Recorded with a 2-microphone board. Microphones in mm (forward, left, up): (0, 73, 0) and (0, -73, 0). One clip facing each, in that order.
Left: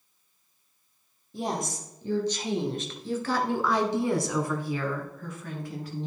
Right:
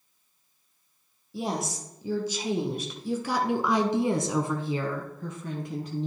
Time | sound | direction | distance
1.3 | a woman speaking | 5° right (ahead or behind) | 2.5 m